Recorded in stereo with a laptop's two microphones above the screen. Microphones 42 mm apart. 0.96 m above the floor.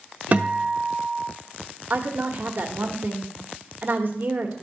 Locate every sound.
0.3 s a guitar: 30° right (ahead or behind), 0.7 m
1.9 s a woman speaking: 45° right (ahead or behind), 1.3 m